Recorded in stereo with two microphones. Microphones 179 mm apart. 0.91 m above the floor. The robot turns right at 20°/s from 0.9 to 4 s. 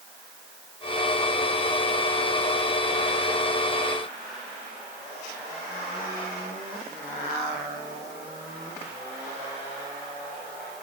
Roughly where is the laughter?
I don't hear laughter.